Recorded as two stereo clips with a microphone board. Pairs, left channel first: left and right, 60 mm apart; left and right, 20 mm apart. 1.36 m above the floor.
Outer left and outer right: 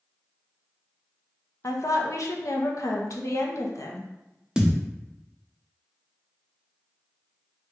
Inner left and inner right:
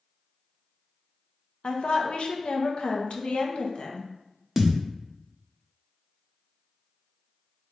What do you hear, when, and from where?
1.6 s a woman speaking: 60° left (ahead or behind), 0.8 m
4.6 s a thud: 10° right (ahead or behind), 0.6 m